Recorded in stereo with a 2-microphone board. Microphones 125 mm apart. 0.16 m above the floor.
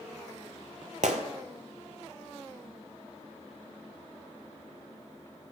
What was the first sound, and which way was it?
A gunshot, 80° right.